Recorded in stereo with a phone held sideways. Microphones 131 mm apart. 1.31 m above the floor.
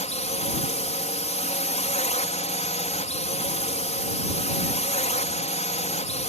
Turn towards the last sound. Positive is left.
turn(degrees=55)  # may be behind; listen again after turning